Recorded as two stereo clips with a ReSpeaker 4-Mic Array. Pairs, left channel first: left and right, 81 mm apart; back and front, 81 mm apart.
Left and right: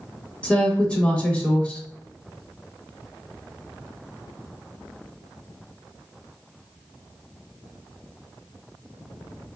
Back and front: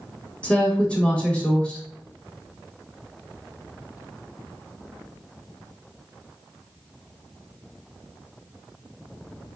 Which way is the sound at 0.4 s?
140° left.